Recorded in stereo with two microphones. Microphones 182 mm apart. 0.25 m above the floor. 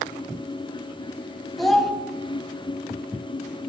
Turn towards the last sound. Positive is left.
turn(degrees=0)  # may be behind; listen again after turning